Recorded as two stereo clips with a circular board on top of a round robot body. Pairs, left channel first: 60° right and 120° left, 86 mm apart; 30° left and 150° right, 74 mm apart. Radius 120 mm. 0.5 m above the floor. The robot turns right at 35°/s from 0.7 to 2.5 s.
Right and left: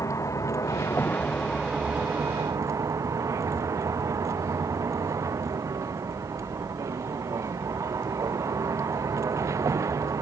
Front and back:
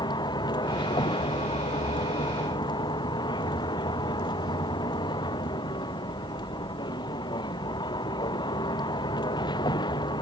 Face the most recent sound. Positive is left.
turn(degrees=60)